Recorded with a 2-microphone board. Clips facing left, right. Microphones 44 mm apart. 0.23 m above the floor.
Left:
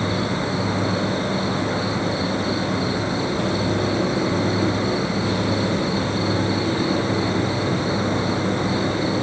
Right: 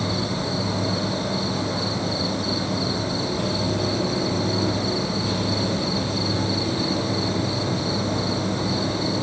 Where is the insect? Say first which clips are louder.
Left 3 dB; 35° left (ahead or behind), 1.4 m.